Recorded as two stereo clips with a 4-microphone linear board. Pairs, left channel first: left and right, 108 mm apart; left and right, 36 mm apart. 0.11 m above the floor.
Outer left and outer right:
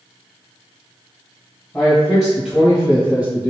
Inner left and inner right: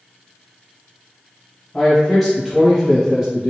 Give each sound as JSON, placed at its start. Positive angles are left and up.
{"t": 1.7, "sound": "a man speaking", "side_deg": 10, "distance_m": 1.7}